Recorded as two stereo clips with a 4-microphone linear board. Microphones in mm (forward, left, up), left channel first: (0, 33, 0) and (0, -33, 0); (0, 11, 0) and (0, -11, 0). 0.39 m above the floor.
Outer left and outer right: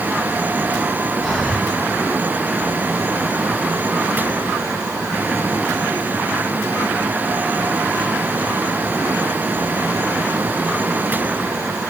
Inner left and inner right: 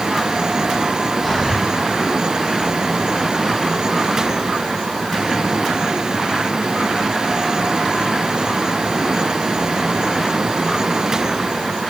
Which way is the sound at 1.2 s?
5° left (ahead or behind).